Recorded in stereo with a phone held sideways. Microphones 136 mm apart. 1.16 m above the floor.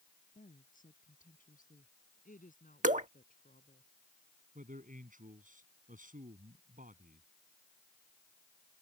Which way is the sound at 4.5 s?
75° right (ahead or behind).